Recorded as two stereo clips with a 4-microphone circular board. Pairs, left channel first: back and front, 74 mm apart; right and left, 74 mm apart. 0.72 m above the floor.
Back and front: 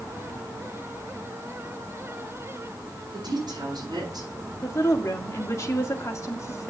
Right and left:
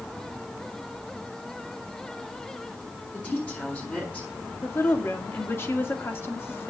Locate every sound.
3.1 s a woman speaking: 20° right, 6.5 m
4.6 s a woman speaking: 140° right, 1.9 m